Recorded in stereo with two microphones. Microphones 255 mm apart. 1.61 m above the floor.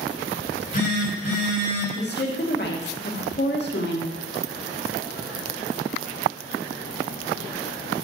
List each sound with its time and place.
0.5 s a phone buzzing: 35° left (ahead or behind), 3.5 m
1.9 s a woman speaking: 40° left (ahead or behind), 2.5 m